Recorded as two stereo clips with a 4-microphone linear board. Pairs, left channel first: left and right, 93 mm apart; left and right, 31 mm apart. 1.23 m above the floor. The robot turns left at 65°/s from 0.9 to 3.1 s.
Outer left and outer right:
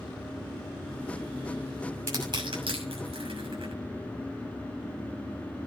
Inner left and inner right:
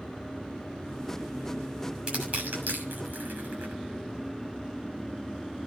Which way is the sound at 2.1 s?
30° right (ahead or behind).